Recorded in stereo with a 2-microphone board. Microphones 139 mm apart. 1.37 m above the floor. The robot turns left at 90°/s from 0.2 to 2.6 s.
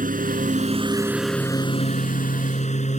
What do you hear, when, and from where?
0.0 s a lawn mower: 85° right; by 3.0 s 60° left